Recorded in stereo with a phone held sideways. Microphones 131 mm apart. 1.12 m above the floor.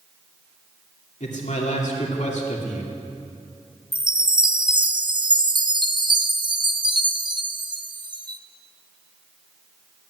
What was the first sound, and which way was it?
A man speaking, 65° left (ahead or behind).